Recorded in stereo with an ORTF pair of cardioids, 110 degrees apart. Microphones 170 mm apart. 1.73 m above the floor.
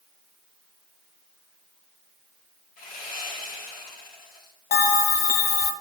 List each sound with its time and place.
2.8 s sawing: 55° left, 2.5 m
4.7 s a bell: 70° left, 1.2 m